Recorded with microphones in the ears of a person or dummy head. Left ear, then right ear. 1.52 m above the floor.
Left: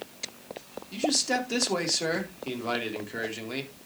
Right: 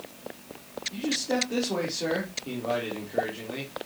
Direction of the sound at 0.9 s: 65° left (ahead or behind).